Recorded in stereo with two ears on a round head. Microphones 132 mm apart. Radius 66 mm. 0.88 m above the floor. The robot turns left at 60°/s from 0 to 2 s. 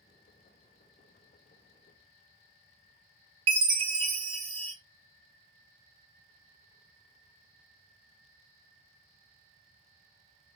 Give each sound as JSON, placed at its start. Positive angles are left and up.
{"t": 3.5, "sound": "a chime", "side_deg": -40, "distance_m": 0.9}